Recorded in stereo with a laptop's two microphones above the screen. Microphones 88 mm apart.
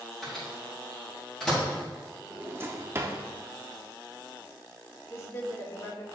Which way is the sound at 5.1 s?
30° left (ahead or behind).